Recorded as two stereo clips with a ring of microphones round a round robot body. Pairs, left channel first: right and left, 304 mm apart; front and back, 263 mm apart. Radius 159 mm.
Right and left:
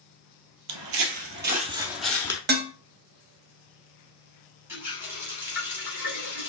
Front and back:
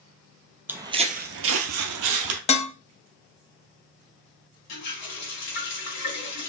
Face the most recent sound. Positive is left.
turn(degrees=5)